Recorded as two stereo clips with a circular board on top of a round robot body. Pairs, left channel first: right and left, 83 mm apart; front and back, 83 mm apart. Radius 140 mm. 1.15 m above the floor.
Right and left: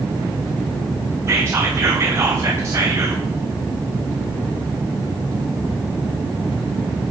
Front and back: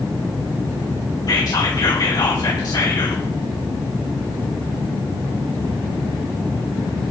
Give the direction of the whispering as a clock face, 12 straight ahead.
11 o'clock.